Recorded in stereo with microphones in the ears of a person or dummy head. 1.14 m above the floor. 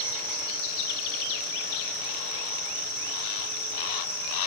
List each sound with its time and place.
0.0 s an insect: 10° left (ahead or behind), 1.7 m